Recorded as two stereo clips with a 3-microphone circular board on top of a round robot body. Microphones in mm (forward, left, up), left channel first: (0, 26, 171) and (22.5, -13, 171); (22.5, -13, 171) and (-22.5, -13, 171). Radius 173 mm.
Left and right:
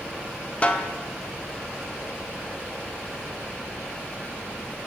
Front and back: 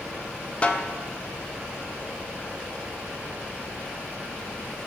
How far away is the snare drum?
About 0.8 m.